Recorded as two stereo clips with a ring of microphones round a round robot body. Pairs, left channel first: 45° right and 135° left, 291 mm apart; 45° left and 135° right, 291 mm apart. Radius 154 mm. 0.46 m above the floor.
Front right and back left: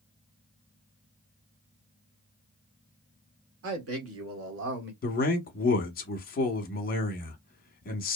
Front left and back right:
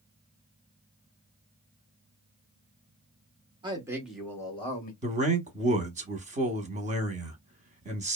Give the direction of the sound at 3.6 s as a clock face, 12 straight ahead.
7 o'clock.